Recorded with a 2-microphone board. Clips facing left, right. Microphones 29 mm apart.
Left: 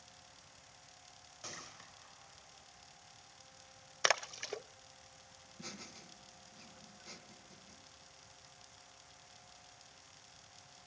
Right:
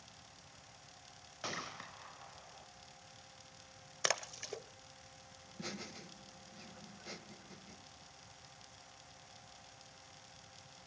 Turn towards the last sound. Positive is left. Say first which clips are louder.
# right 4 dB
turn(degrees=-25)  # may be behind; listen again after turning